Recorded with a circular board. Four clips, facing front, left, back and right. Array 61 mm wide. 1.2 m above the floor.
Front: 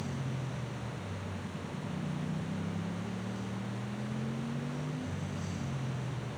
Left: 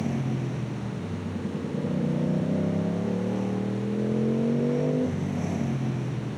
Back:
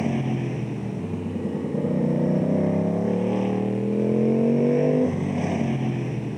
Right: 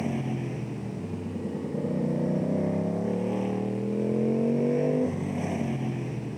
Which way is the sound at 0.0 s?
165° right.